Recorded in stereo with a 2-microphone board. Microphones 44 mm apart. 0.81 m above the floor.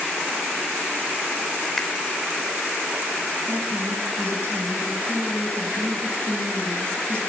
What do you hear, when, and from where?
1.8 s a finger snap: 10° left (ahead or behind), 3.5 m
3.5 s a woman speaking: 60° right (ahead or behind), 5.5 m